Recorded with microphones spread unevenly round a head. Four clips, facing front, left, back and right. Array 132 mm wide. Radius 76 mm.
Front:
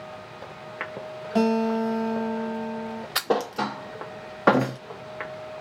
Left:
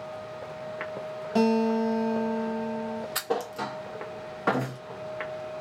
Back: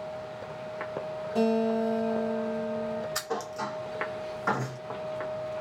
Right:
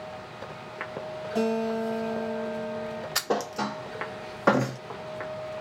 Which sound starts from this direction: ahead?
A thud, at 3.1 s.